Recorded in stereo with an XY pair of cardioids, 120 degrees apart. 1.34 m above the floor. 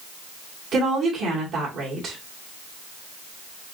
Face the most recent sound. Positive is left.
turn(degrees=-60)